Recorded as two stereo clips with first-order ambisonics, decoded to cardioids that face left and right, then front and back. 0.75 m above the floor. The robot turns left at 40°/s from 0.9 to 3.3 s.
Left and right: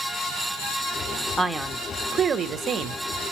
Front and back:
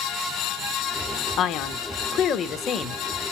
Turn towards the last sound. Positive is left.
turn(degrees=-75)